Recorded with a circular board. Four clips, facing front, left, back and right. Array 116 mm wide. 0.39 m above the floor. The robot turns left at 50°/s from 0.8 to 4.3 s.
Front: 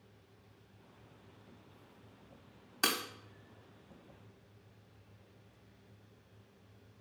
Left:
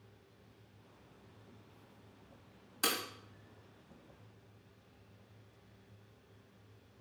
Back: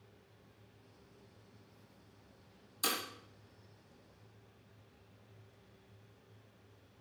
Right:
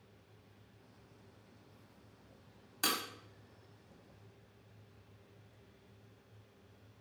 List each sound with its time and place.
2.8 s breaking glass: 5° left, 0.7 m; by 3.0 s 5° right, 0.7 m